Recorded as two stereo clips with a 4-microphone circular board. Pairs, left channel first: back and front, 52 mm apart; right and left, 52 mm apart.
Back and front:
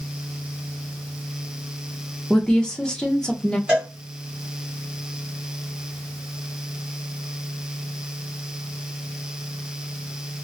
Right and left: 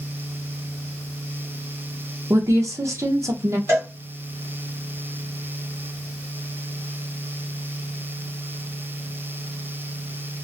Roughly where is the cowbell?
Left.